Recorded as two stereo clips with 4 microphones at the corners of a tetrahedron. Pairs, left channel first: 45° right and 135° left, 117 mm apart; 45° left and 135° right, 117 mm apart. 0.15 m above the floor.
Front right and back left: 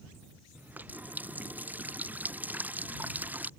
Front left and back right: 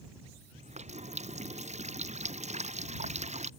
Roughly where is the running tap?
Behind right.